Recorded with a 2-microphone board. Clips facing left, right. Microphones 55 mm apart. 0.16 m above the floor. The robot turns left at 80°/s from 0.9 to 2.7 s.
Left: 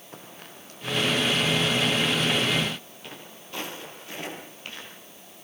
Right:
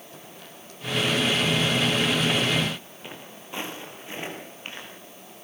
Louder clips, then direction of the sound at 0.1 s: Left 4 dB; 45° left (ahead or behind).